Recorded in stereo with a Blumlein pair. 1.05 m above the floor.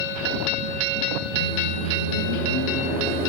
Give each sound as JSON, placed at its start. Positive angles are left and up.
{"t": 1.4, "sound": "a microwave", "azimuth_deg": 55, "distance_m": 1.0}